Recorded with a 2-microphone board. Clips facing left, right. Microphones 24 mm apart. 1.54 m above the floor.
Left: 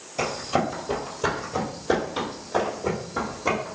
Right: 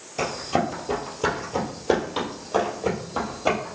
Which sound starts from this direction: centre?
Running footsteps, at 0.2 s.